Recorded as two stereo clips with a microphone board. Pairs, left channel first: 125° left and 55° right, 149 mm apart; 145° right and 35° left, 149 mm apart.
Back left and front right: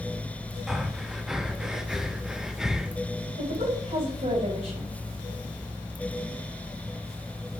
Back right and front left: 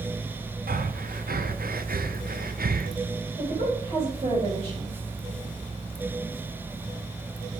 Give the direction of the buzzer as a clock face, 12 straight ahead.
I don't hear a buzzer.